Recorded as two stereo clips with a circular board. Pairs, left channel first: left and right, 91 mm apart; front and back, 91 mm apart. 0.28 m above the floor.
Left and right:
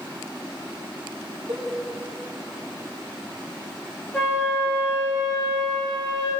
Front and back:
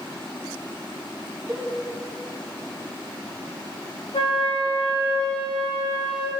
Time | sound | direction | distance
1.5 | a cowbell | 105° right | 3.5 m
4.1 | a flute | 10° left | 4.5 m